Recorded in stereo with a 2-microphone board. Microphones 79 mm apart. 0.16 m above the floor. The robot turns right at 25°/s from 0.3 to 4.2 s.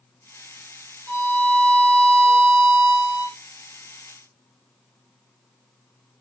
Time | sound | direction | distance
1.1 | a violin | 145° left | 3 m